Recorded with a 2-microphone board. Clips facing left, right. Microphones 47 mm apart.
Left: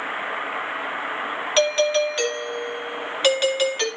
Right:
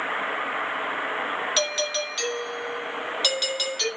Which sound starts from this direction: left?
A doorbell, at 1.6 s.